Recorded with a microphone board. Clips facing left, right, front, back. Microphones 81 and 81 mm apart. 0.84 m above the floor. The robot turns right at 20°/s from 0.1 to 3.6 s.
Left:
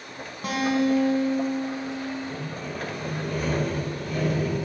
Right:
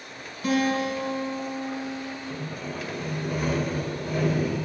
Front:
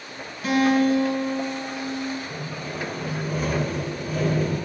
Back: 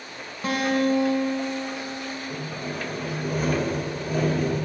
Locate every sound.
0.4 s a guitar: 130° left, 2.0 m; by 2.2 s 165° left, 2.0 m
2.3 s sawing: 165° left, 2.0 m; by 4.5 s 165° right, 2.0 m